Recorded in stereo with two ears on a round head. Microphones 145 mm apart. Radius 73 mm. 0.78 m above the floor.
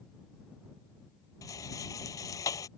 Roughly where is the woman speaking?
I don't hear a woman speaking.